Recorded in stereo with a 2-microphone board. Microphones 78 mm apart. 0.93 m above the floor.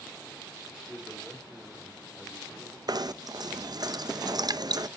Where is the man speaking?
5° left (ahead or behind), 3.5 m.